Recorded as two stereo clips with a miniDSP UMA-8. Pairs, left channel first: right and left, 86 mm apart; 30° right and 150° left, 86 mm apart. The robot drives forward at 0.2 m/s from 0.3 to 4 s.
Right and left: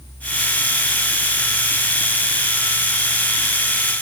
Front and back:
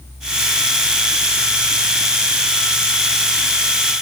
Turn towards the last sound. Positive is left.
No sound to turn to.